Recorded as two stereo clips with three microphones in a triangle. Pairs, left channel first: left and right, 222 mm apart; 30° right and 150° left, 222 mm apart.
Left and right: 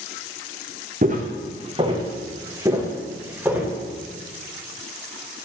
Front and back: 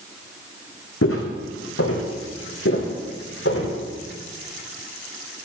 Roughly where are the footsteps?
Ahead right.